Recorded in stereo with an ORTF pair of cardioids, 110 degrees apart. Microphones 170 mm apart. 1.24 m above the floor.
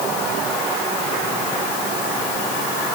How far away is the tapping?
No tapping in this recording.